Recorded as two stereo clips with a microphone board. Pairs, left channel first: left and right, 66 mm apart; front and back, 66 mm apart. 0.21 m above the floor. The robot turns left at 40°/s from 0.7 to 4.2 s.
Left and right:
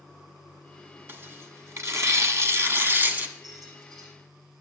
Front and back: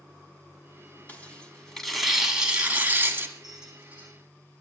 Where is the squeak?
90° right, 4.5 m; by 4.1 s 120° right, 4.5 m.